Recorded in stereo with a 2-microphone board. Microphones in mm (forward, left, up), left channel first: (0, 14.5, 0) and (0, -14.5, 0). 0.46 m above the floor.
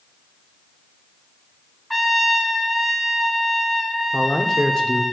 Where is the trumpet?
5° left (ahead or behind), 0.7 m.